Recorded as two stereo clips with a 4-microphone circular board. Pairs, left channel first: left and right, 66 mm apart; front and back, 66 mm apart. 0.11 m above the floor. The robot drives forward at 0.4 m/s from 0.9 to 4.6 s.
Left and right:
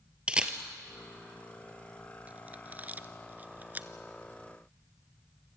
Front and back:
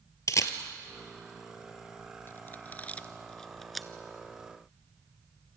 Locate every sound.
0.3 s a camera shutter: 20° right, 1.5 m; by 3.9 s 95° right, 0.9 m